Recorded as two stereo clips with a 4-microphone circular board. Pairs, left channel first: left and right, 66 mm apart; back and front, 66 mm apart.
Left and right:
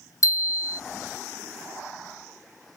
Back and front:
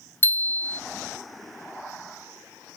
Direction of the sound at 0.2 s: 120° left.